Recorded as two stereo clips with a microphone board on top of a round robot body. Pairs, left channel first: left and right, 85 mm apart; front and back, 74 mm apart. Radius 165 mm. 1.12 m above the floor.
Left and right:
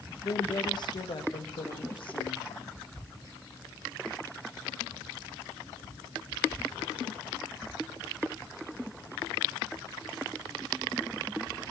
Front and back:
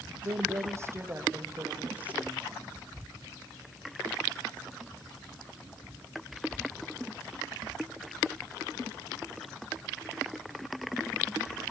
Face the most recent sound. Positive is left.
turn(degrees=105)